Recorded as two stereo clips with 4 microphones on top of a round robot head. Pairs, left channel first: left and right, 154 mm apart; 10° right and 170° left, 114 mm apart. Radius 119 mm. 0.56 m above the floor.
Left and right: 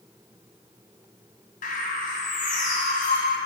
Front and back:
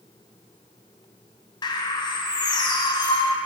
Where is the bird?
40° left, 0.9 m.